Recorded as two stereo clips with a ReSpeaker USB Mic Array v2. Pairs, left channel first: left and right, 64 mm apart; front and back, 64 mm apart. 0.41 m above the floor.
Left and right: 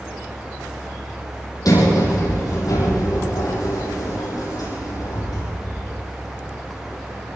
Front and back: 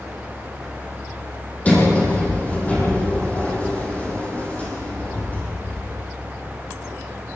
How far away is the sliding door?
About 7.5 m.